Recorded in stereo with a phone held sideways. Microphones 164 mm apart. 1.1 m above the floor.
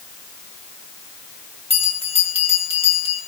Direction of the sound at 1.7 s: 35° left (ahead or behind).